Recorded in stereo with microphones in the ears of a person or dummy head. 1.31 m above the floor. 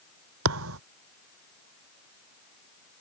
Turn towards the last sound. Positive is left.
turn(degrees=-75)  # may be behind; listen again after turning